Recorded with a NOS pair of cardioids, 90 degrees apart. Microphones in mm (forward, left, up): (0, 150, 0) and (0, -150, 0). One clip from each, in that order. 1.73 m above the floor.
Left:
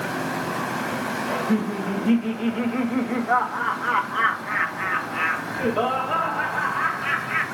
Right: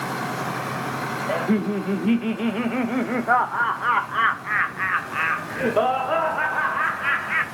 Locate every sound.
1.3 s laughter: 30° right, 1.0 m